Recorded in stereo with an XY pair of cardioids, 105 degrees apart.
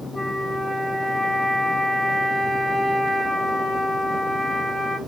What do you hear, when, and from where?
0.1 s a flute: 25° right, 3 m